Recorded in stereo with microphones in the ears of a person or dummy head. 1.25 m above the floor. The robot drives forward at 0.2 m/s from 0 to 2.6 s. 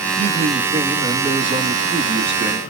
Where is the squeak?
No squeak in this recording.